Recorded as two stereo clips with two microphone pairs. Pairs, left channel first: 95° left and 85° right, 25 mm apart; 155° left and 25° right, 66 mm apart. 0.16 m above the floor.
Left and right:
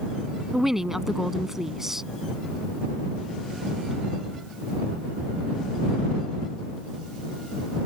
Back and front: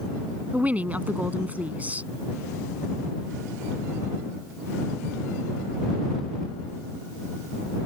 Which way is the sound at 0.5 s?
45° right.